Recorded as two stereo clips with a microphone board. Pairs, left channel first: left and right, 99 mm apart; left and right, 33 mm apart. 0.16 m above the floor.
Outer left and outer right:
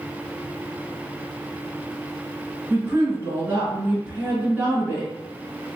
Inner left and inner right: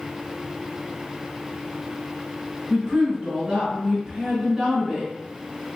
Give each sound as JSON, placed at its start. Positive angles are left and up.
{"t": 2.7, "sound": "a woman speaking", "side_deg": -25, "distance_m": 1.4}